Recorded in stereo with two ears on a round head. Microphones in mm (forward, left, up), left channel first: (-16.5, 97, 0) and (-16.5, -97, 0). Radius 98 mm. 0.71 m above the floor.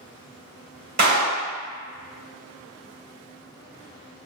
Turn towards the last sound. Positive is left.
turn(degrees=-40)  # may be behind; listen again after turning